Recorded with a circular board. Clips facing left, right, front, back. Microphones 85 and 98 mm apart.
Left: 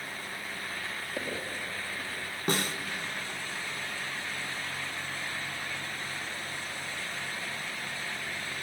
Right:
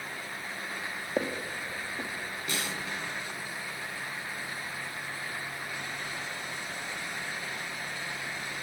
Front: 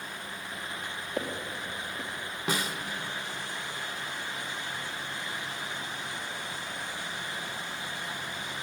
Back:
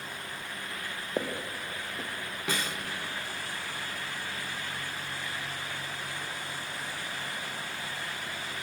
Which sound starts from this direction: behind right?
Footsteps, at 1.2 s.